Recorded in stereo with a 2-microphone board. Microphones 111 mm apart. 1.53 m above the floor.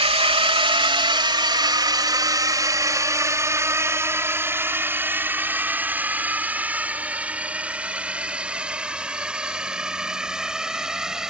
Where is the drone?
55° right (ahead or behind); by 11.3 s 5° right (ahead or behind).